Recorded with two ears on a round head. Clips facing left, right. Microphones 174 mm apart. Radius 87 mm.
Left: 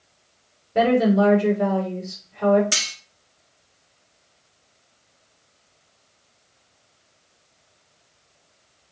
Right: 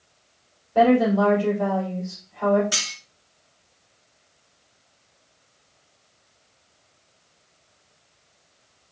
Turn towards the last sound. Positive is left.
turn(degrees=35)  # may be behind; listen again after turning